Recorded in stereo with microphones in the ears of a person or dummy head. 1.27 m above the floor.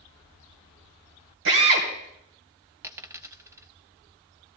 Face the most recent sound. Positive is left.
turn(degrees=-15)  # may be behind; listen again after turning